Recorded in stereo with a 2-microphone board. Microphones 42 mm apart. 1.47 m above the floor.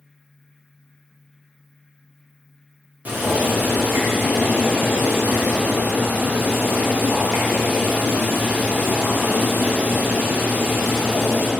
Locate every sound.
3.0 s boiling: 40° right (ahead or behind), 0.9 m